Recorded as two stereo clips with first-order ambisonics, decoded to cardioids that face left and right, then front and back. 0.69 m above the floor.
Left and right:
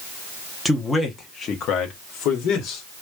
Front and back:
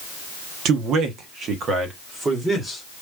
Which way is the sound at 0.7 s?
175° left.